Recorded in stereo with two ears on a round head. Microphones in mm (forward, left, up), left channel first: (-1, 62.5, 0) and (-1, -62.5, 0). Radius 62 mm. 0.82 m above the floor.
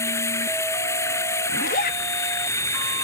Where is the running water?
20° left (ahead or behind).